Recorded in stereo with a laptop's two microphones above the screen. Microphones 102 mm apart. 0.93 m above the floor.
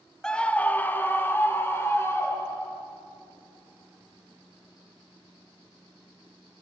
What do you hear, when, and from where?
0.2 s a scream: 5° left (ahead or behind), 0.8 m; by 2.8 s 25° left (ahead or behind), 3.5 m